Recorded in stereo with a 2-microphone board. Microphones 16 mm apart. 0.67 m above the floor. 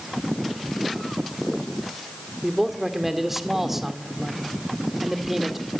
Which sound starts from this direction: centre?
A man speaking, at 2.4 s.